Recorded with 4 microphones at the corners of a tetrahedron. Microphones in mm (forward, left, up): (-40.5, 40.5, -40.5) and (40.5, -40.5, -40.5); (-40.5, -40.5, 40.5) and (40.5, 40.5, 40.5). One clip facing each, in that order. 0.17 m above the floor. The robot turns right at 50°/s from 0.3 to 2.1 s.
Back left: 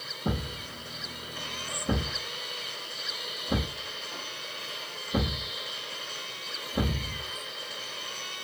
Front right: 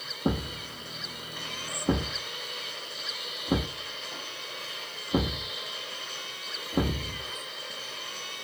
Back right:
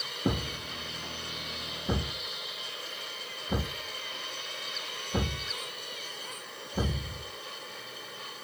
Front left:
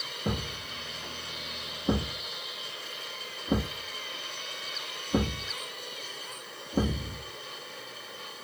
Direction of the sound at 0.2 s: 85° right.